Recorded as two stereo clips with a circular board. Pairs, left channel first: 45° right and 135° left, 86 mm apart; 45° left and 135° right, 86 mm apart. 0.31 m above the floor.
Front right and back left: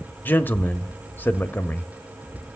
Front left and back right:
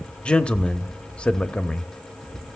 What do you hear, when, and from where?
0.2 s a man speaking: 15° right, 1.0 m